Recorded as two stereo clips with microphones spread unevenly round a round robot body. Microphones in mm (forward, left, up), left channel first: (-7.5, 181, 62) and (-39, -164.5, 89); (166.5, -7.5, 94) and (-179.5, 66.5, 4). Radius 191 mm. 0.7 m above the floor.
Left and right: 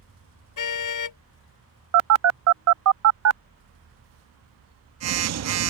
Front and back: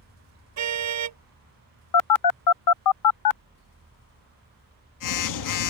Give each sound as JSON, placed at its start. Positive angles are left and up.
{"t": 0.6, "sound": "a car horn", "azimuth_deg": 125}
{"t": 1.9, "sound": "a phone buzzing", "azimuth_deg": -55}